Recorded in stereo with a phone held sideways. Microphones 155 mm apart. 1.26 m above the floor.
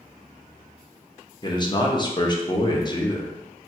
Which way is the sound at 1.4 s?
30° left (ahead or behind).